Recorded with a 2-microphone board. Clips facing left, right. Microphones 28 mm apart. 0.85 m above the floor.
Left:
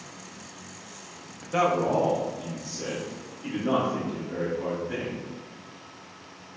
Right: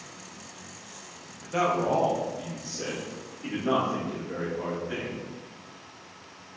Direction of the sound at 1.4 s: 15° left (ahead or behind).